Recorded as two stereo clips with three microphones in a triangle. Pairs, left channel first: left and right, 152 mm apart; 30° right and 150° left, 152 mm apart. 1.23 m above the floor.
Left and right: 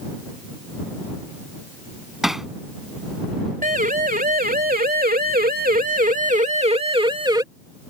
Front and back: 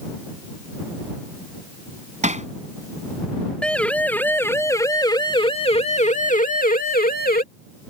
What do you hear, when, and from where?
2.2 s hammering: 175° right
3.6 s a siren: 115° right; by 7.4 s 25° right